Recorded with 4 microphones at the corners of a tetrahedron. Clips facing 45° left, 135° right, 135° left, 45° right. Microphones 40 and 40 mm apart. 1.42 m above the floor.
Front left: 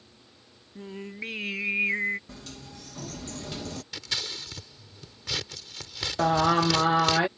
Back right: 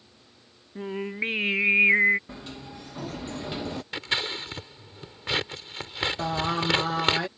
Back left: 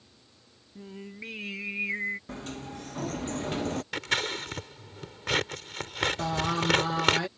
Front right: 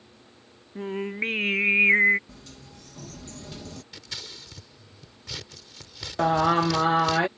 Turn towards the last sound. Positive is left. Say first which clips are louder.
# front left 9 dB, front right 7 dB
turn(degrees=-10)